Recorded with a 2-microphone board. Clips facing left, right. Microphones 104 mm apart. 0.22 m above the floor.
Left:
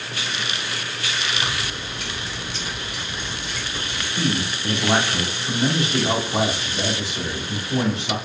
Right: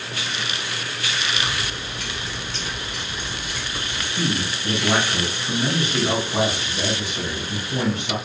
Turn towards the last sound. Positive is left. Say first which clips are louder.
# left 1 dB
turn(degrees=30)  # may be behind; listen again after turning